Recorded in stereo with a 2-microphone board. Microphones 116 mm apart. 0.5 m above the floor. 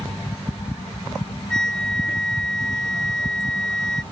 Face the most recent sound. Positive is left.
turn(degrees=5)  # may be behind; listen again after turning